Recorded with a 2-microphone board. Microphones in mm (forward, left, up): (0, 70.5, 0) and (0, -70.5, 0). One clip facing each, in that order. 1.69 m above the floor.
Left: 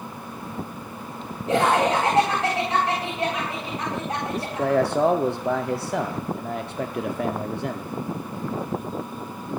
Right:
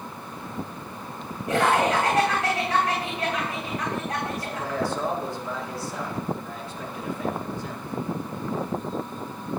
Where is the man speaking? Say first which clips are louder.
Left 7 dB; 65° left (ahead or behind), 0.7 m.